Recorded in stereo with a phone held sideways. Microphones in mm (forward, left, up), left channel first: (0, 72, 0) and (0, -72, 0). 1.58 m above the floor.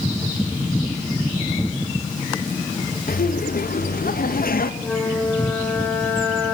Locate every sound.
3.1 s laughter: 85° left, 2 m
4.8 s a flute: 10° left (ahead or behind), 5 m